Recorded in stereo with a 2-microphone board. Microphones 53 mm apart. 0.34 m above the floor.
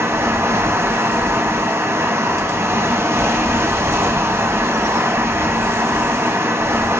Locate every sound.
0.0 s running water: 50° right (ahead or behind), 0.8 m